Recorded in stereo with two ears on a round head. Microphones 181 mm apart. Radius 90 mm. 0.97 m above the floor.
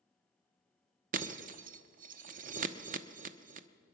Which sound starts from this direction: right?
Breaking glass, at 1.1 s.